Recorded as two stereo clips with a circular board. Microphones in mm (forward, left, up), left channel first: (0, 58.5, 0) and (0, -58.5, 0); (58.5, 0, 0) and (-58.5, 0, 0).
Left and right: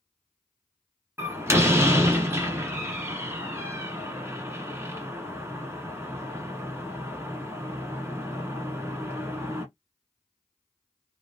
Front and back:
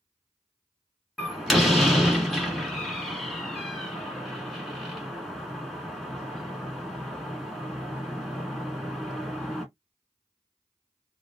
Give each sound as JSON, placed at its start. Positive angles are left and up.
{"t": 1.2, "sound": "a door slam", "azimuth_deg": -90, "distance_m": 1.1}